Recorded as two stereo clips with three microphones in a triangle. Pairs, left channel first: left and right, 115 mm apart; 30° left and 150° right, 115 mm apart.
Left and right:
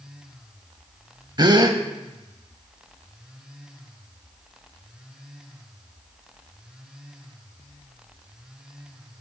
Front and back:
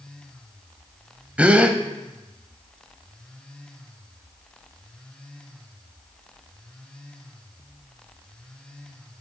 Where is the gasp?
80° right, 0.5 m.